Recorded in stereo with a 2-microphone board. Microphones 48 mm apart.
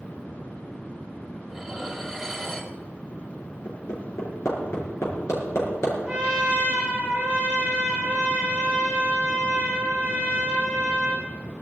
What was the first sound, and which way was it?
Dishes clattering, 5° left (ahead or behind).